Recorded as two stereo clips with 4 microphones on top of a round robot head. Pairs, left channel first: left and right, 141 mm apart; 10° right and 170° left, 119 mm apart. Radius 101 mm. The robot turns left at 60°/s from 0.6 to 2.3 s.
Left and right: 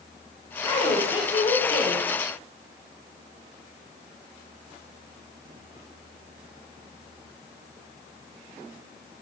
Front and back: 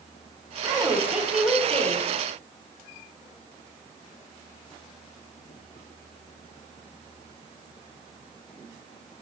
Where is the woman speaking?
125° left, 1.0 m; by 2.1 s 35° left, 1.0 m.